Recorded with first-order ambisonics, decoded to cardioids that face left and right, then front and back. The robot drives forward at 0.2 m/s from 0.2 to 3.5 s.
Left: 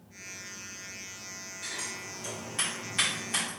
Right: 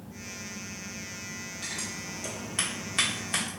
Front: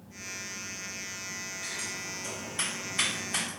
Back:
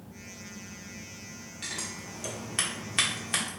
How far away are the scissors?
About 0.7 m.